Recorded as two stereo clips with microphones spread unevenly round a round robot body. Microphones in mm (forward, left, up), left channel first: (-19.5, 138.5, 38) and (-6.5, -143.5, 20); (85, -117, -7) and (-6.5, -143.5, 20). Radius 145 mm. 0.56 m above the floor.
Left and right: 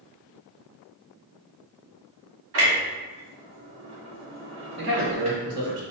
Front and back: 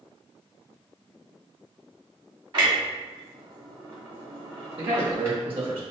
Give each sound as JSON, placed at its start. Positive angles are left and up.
{"t": 2.5, "sound": "a clunk", "azimuth_deg": -120, "distance_m": 2.0}
{"t": 4.8, "sound": "a man speaking", "azimuth_deg": -135, "distance_m": 1.6}